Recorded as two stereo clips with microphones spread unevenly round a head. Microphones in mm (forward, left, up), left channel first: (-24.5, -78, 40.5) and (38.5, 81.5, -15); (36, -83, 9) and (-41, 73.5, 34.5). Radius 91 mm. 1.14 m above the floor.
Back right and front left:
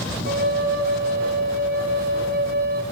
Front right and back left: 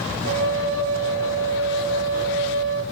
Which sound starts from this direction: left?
A flute, at 0.2 s.